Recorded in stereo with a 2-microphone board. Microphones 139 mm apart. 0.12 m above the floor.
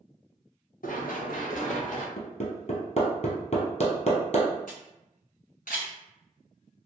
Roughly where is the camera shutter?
Left.